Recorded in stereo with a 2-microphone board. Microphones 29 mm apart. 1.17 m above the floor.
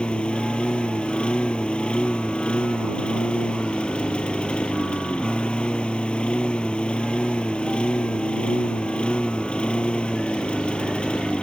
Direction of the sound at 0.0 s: 35° left (ahead or behind).